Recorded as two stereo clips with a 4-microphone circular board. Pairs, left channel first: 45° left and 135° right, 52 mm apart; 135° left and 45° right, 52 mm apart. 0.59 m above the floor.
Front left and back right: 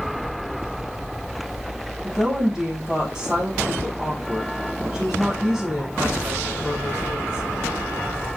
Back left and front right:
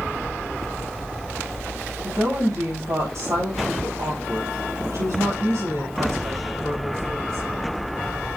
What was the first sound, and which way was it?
A woman speaking, 60° right.